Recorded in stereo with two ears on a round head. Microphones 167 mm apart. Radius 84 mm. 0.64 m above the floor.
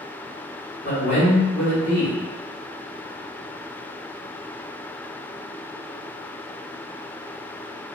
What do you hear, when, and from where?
0.8 s a man speaking: 40° left (ahead or behind), 1.1 m